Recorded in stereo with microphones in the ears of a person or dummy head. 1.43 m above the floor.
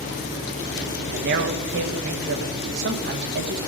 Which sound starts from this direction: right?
A man speaking, at 1.1 s.